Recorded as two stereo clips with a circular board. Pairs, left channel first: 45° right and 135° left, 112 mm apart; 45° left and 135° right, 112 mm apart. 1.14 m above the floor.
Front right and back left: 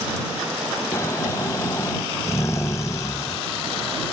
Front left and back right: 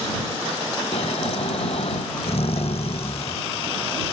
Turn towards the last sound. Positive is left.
turn(degrees=20)